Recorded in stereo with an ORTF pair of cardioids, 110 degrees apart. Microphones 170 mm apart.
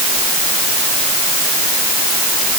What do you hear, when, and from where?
Only background noise.